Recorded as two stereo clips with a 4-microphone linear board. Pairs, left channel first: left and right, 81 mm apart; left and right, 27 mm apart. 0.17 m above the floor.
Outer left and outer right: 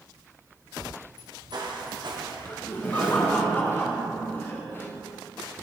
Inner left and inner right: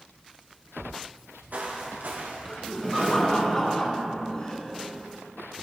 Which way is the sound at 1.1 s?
65° right (ahead or behind).